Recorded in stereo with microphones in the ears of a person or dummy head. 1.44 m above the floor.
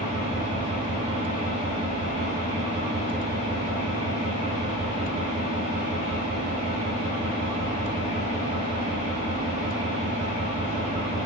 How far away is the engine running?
About 1.3 m.